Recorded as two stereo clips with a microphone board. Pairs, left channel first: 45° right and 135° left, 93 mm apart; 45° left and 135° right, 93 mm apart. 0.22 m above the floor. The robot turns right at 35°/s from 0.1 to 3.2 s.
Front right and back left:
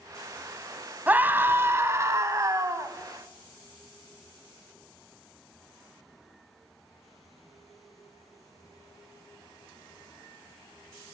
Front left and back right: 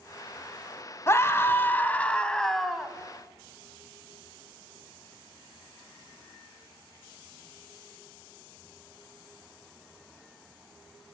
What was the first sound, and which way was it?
A scream, 75° left.